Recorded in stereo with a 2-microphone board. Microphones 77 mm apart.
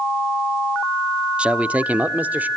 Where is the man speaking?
15° right (ahead or behind), 0.7 m; by 2.5 s 20° right (ahead or behind), 1.3 m.